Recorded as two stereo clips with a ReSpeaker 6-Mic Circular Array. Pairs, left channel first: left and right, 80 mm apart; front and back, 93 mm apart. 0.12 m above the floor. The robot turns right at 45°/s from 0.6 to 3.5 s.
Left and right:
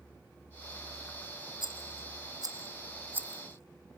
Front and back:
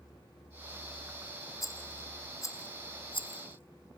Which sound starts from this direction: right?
A rattle, at 1.6 s.